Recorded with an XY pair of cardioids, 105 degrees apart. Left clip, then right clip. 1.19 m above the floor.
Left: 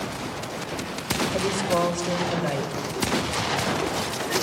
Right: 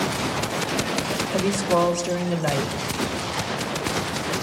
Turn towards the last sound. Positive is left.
turn(degrees=-20)